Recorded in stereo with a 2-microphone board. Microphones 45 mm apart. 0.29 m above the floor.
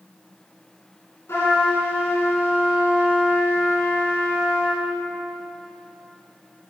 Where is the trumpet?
70° left (ahead or behind), 3.5 m.